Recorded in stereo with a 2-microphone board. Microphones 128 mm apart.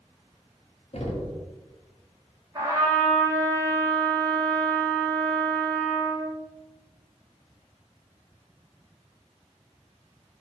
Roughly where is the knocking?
Left.